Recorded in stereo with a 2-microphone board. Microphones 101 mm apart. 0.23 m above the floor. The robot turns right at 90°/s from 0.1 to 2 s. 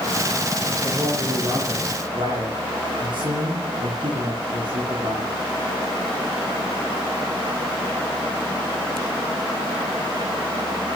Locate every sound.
0.8 s a man speaking: 150° left, 3 m; by 5.3 s 105° right, 3 m